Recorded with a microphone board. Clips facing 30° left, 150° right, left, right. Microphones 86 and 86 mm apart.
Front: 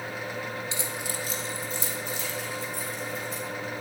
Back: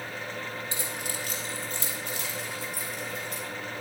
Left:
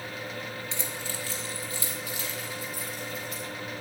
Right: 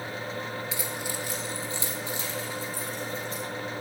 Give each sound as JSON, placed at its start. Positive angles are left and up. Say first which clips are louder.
{"t": 0.7, "sound": "keys jangling", "louder": "front 2 dB, right 3 dB", "azimuth_deg": -175, "distance_m": 1.4}